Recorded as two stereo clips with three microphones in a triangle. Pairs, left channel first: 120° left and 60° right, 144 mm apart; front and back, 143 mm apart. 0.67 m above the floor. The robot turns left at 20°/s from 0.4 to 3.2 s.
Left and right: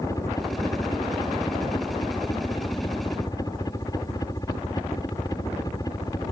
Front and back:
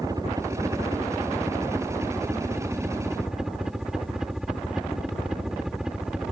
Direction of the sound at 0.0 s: 155° left.